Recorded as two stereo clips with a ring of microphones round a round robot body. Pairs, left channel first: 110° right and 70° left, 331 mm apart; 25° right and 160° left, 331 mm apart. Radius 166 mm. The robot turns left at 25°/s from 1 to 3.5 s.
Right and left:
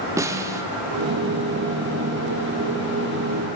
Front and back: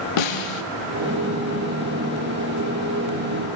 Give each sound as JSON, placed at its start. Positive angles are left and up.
{"t": 0.2, "sound": "a snare drum", "azimuth_deg": -15, "distance_m": 0.6}